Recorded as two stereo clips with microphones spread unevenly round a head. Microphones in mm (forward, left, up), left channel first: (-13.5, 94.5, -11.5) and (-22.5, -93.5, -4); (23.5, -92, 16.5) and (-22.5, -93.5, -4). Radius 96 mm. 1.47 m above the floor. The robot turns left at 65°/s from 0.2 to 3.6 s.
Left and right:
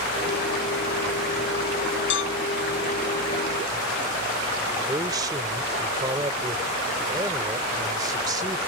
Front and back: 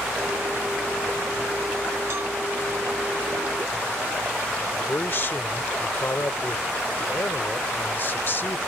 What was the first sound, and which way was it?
A cowbell, 110° left.